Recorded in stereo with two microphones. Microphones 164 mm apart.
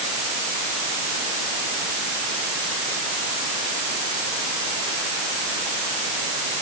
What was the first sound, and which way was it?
Only background noise.